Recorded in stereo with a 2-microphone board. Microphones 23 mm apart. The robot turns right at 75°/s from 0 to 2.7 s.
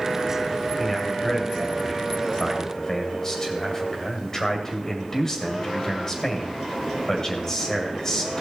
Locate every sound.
0.8 s a man speaking: 5° left, 2 m; by 8.4 s 150° left, 2 m